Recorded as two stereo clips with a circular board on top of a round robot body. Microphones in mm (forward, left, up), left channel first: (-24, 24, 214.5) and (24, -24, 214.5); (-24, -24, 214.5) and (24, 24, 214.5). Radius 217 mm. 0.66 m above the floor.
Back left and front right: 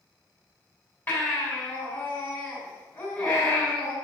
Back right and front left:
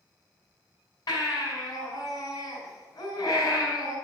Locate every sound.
1.1 s a baby crying: 160° right, 5.5 m